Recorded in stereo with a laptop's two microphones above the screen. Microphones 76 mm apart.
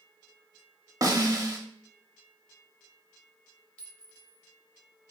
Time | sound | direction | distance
1.0 | a snare drum | 50° right (ahead or behind) | 0.9 m
3.8 | a clink | 15° left (ahead or behind) | 0.8 m